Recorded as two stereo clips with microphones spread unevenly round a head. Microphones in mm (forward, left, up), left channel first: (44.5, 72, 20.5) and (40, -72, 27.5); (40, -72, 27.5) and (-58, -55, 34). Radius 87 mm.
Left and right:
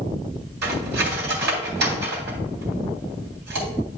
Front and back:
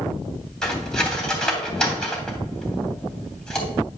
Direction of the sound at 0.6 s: 95° right.